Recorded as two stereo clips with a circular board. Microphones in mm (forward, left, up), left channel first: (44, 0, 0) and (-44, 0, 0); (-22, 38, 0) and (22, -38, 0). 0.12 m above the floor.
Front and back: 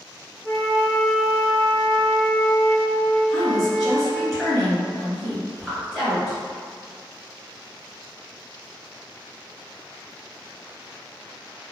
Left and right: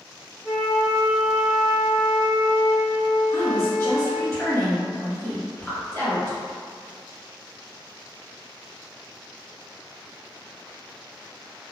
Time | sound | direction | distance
0.4 | a flute | 155° right | 1.2 m
3.3 | a woman speaking | 85° left | 1.7 m